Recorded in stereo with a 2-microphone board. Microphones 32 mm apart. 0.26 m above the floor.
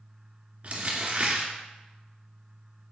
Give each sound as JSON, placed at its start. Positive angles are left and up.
{"t": 0.6, "sound": "crumpling", "side_deg": -55, "distance_m": 2.0}